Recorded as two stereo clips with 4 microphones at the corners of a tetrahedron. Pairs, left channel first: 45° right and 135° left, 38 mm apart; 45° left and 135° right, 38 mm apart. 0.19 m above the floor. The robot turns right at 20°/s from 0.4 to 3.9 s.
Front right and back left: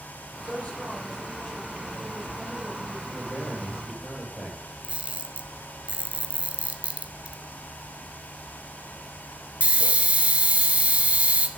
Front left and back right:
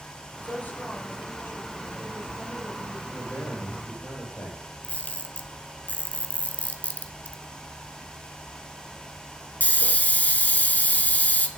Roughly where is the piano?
No piano in this recording.